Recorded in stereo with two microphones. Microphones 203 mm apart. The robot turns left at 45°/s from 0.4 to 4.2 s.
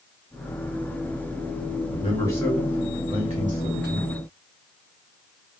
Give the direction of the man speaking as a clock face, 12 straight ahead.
11 o'clock.